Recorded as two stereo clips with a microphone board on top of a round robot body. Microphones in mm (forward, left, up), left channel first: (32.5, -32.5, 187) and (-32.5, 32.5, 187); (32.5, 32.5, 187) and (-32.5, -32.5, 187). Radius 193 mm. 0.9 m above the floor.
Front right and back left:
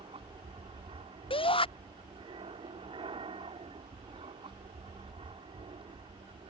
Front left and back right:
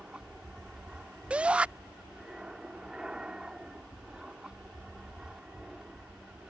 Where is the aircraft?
145° left.